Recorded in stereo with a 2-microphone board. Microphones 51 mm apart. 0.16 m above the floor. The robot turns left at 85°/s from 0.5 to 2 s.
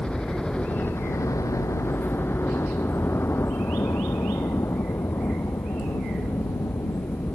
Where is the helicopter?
15° left (ahead or behind); by 7.3 s 70° left (ahead or behind).